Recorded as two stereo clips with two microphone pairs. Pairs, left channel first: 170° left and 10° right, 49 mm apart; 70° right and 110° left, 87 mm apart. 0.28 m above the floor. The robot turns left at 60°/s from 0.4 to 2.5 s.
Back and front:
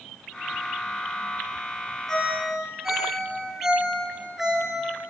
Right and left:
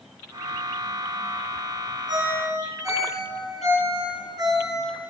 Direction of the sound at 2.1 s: 95° left.